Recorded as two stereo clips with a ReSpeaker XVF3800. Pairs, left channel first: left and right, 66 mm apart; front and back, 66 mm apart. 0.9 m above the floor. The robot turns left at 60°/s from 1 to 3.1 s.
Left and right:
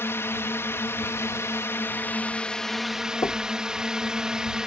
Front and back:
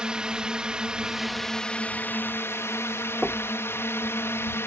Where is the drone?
110° left; by 4.7 s 15° right.